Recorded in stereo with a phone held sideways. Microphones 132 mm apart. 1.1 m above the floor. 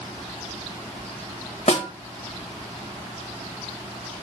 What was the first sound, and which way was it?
A snare drum, 55° left (ahead or behind).